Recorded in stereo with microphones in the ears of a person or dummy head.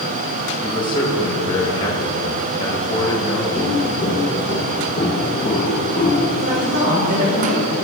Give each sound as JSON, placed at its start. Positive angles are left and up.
{"t": 0.6, "sound": "a man speaking", "side_deg": 25, "distance_m": 2.0}
{"t": 3.6, "sound": "footsteps", "side_deg": 35, "distance_m": 3.5}
{"t": 6.4, "sound": "a woman speaking", "side_deg": -60, "distance_m": 4.0}